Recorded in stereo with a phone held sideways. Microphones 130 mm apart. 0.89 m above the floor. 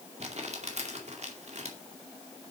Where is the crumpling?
60° right (ahead or behind), 2 m.